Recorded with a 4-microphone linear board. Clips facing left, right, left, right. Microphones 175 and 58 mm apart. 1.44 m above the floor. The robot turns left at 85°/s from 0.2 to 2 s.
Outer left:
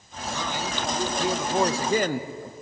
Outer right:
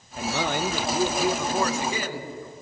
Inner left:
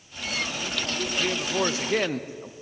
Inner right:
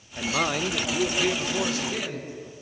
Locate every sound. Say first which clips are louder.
0.2 s a man speaking: outer right 5 dB, inner right 5 dB; 85° right, 1.1 m; by 2.5 s 120° left, 1.1 m